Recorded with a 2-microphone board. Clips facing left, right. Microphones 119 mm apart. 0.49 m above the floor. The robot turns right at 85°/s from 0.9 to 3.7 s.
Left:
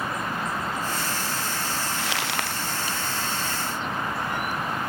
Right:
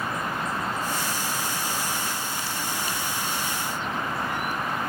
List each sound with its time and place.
2.0 s crumpling: 75° left; by 2.6 s 130° left